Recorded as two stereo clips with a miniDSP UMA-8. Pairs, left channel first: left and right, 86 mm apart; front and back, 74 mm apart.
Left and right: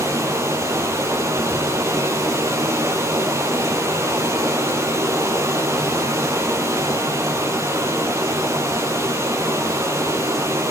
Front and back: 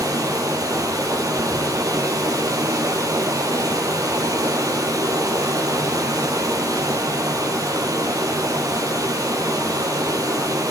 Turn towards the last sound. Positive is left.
turn(degrees=-145)